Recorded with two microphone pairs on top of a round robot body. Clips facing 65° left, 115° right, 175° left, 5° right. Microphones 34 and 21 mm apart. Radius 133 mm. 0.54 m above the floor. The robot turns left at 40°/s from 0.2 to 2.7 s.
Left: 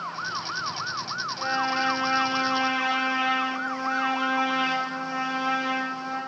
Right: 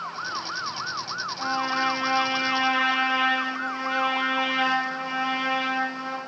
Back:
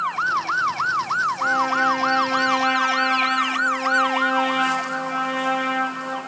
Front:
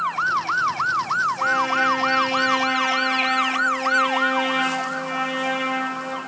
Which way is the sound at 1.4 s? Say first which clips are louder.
Even, back 1 dB; 15° right.